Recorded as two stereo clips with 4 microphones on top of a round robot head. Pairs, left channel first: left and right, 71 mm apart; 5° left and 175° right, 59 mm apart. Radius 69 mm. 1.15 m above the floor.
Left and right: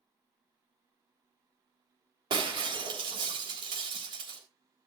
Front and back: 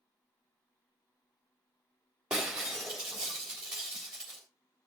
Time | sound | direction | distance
2.3 | breaking glass | 95° right | 3.5 m